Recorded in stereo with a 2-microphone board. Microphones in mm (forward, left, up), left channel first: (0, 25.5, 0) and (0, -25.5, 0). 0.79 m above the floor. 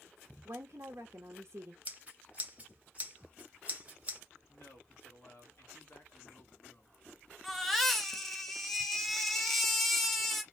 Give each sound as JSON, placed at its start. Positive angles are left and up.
{"t": 0.5, "sound": "a woman speaking", "side_deg": -60, "distance_m": 0.8}
{"t": 1.9, "sound": "scissors", "side_deg": -30, "distance_m": 0.8}
{"t": 4.5, "sound": "a man speaking", "side_deg": 50, "distance_m": 1.5}
{"t": 7.4, "sound": "a baby crying", "side_deg": 0, "distance_m": 0.7}